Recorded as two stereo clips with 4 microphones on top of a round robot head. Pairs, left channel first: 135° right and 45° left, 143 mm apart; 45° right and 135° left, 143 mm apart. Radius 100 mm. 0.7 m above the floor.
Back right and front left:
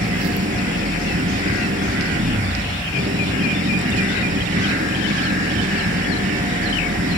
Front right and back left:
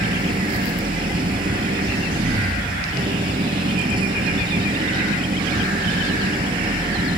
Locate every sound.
0.0 s an engine running: 80° left